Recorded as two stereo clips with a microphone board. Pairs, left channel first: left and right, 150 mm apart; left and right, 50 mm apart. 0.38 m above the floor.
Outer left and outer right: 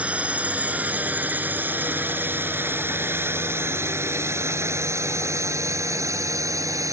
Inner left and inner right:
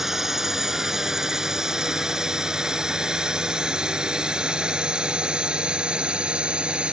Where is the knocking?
I don't hear knocking.